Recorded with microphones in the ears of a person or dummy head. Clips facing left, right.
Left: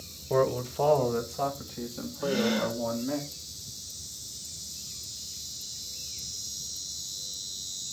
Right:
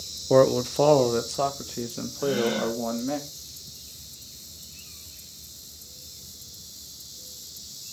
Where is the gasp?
5° left (ahead or behind), 6 m.